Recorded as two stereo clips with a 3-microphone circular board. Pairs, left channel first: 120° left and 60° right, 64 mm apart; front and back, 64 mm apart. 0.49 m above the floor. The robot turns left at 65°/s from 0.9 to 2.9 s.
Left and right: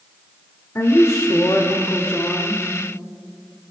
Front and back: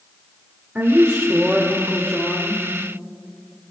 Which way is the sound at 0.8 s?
130° left.